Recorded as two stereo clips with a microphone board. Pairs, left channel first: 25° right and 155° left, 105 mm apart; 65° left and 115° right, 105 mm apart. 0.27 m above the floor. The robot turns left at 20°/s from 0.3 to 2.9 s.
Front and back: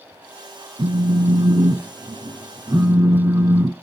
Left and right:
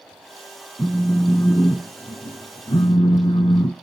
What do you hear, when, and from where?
0.8 s a phone buzzing: 140° left, 0.6 m; by 3.7 s 95° left, 0.6 m